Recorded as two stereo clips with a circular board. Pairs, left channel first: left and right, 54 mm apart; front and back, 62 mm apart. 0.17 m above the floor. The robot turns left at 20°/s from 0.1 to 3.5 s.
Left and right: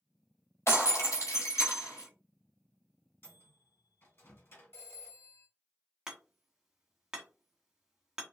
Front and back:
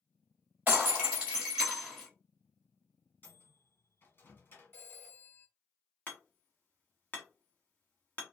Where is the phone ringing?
50° left, 1.8 m.